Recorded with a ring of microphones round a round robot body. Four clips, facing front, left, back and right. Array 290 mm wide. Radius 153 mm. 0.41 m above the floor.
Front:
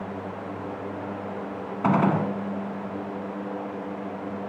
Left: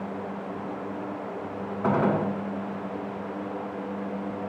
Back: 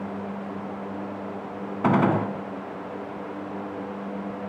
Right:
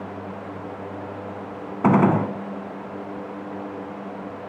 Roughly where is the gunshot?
Right.